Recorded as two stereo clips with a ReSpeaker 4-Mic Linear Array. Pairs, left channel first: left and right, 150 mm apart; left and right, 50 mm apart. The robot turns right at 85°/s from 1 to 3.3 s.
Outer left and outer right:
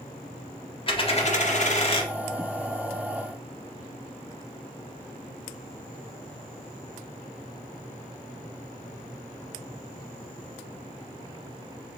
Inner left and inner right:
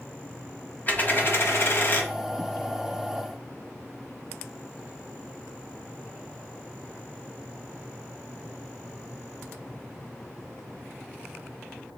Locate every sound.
0.9 s a dropped coin: 45° left, 0.7 m; by 2.1 s 140° left, 0.7 m